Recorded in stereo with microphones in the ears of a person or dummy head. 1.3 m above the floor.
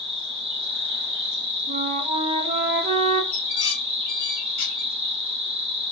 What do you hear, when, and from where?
0.0 s an insect: 40° right (ahead or behind), 1.3 m
1.7 s a flute: 45° right (ahead or behind), 0.8 m
3.3 s dishes clattering: 75° left (ahead or behind), 0.8 m